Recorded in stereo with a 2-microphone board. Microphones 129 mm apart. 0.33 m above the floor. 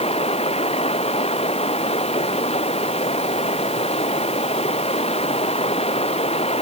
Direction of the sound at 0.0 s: 50° left (ahead or behind).